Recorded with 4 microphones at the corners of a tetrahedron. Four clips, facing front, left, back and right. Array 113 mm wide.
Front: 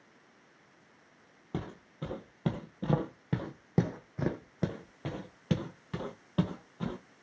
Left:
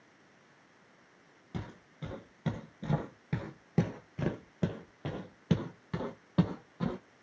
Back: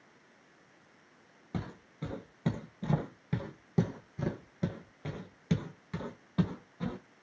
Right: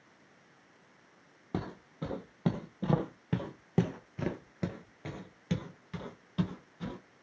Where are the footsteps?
65° right, 1.7 m; by 7.0 s 65° left, 1.9 m.